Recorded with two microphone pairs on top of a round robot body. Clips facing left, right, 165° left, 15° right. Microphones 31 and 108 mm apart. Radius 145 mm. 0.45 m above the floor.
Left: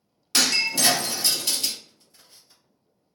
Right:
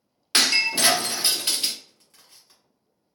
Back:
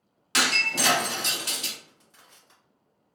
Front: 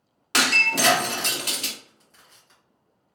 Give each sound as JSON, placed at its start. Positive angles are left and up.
{"t": 0.3, "sound": "breaking glass", "azimuth_deg": -50, "distance_m": 0.8}
{"t": 1.8, "sound": "crushing", "azimuth_deg": -115, "distance_m": 1.6}